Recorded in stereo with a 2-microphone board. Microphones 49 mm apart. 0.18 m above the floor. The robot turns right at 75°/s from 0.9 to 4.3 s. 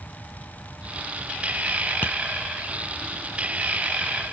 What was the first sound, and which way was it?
Tapping, 40° left (ahead or behind).